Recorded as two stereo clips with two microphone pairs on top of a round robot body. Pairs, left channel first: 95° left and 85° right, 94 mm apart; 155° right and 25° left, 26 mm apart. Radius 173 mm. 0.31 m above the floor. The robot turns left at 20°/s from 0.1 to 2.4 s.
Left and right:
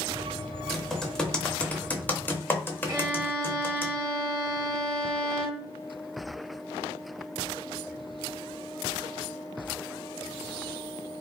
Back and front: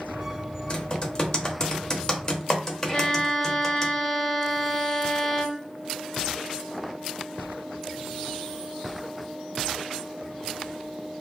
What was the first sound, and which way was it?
Typing on a keyboard, straight behind.